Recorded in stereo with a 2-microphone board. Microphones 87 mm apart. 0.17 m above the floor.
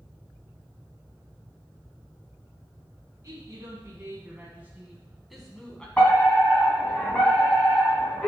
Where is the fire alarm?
15° left (ahead or behind), 2.5 m.